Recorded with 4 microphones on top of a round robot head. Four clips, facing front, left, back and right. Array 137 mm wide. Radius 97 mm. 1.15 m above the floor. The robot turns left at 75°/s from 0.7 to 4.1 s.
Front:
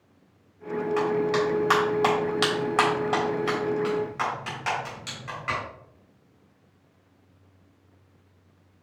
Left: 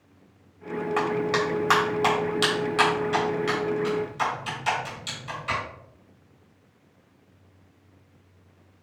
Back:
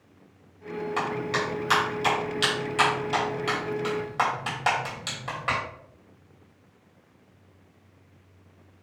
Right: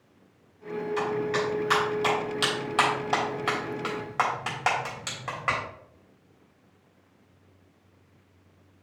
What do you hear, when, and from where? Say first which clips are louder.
1.0 s a clap: left 3 dB, front 5 dB; 115° left, 3.5 m; by 5.6 s 120° right, 3.5 m